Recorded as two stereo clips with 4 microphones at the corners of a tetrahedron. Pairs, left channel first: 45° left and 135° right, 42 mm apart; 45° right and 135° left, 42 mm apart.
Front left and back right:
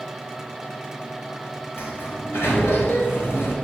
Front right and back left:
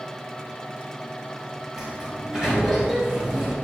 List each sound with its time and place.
1.8 s a sliding door: 55° left, 4.5 m